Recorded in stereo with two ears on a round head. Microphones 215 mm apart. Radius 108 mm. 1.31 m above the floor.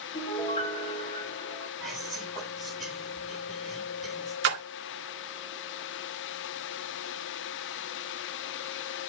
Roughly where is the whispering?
Centre.